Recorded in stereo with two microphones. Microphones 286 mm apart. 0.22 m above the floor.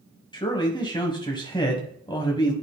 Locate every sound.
0.3 s a man speaking: 15° left (ahead or behind), 1.1 m